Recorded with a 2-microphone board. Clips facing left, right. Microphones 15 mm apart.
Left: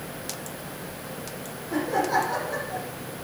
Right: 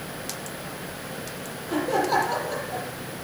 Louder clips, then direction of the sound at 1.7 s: Right 1 dB; 60° right (ahead or behind).